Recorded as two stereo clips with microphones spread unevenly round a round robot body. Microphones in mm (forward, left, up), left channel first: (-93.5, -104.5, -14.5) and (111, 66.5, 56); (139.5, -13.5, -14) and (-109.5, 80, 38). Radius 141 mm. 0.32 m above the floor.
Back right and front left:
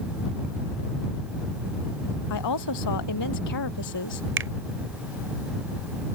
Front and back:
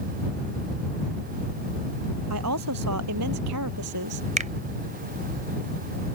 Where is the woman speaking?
160° right; by 4.3 s 165° right.